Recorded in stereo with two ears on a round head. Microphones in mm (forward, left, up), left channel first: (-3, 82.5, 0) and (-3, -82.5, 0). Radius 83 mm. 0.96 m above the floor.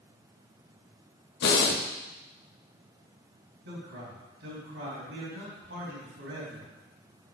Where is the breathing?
60° left (ahead or behind), 1.1 m.